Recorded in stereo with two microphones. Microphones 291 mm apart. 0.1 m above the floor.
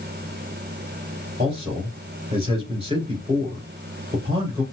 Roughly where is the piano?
I don't hear a piano.